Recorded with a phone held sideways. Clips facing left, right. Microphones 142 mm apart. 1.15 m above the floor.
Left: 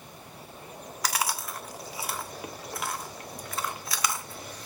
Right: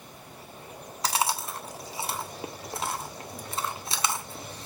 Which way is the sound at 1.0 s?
25° right (ahead or behind).